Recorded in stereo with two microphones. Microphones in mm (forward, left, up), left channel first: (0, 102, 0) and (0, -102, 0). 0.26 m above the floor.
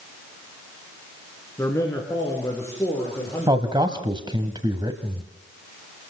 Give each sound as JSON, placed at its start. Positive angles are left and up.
{"t": 1.6, "sound": "a man speaking", "side_deg": 15, "distance_m": 3.0}
{"t": 3.5, "sound": "a man speaking", "side_deg": -25, "distance_m": 1.4}